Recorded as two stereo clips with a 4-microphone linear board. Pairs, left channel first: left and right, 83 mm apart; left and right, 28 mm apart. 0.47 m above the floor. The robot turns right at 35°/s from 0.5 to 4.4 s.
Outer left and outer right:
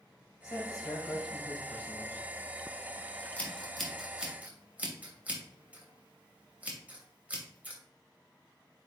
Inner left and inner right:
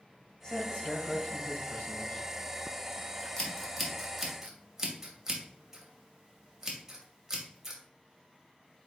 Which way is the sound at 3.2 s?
20° left (ahead or behind).